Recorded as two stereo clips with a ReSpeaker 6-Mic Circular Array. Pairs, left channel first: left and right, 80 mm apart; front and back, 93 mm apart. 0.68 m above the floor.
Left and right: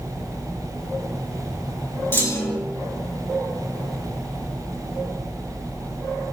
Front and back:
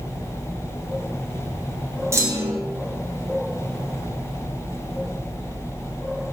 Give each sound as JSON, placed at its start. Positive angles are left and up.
{"t": 2.1, "sound": "a clunk", "azimuth_deg": 140, "distance_m": 1.4}